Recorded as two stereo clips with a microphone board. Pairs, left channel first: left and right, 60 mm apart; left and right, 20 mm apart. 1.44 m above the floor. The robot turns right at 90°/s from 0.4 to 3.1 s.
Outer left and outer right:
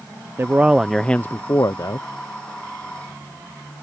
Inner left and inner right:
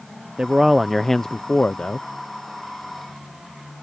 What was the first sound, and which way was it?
A man speaking, 45° right.